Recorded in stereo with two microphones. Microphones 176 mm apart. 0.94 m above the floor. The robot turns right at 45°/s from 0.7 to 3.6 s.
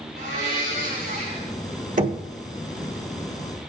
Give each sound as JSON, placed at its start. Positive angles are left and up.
{"t": 0.2, "sound": "a blender", "azimuth_deg": -70, "distance_m": 4.5}
{"t": 2.0, "sound": "knocking", "side_deg": -50, "distance_m": 1.6}